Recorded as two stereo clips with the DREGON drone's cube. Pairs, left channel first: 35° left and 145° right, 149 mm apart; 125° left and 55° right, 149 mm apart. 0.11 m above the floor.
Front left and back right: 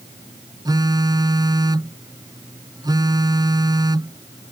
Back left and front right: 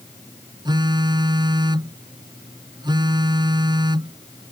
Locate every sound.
0.7 s a phone buzzing: 95° right